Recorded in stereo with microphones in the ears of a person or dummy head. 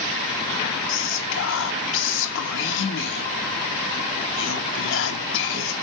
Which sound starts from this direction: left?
Whispering, at 0.9 s.